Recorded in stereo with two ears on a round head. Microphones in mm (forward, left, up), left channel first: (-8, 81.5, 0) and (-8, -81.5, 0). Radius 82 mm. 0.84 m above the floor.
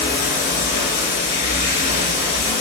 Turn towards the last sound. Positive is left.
turn(degrees=45)  # may be behind; listen again after turning